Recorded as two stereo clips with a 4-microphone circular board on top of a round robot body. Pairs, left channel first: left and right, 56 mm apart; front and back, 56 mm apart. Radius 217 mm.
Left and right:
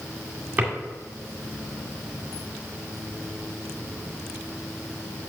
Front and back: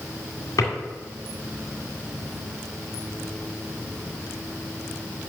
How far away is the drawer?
About 1.9 m.